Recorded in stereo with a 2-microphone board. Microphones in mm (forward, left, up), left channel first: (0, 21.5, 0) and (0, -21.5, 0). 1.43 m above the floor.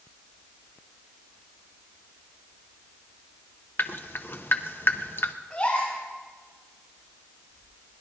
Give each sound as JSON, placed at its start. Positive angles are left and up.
{"t": 3.8, "sound": "dripping", "side_deg": 55, "distance_m": 0.9}
{"t": 5.5, "sound": "a gasp", "side_deg": 30, "distance_m": 5.5}